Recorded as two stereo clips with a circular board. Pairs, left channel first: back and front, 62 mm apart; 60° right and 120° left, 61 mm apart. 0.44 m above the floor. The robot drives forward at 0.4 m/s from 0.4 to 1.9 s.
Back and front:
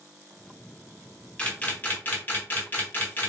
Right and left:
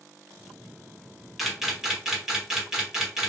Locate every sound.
1.4 s a camera shutter: 155° right, 0.8 m; by 3.3 s 165° right, 0.9 m